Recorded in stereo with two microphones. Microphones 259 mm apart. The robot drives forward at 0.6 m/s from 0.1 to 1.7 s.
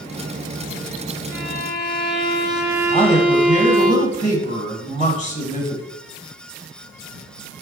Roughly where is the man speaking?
Left.